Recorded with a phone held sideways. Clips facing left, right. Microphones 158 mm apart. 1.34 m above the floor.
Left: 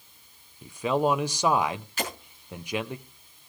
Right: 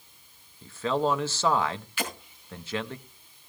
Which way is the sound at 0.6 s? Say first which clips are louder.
Left 2 dB; 15° left (ahead or behind).